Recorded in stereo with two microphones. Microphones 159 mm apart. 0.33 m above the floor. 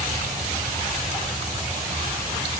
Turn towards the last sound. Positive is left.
No sound to turn to.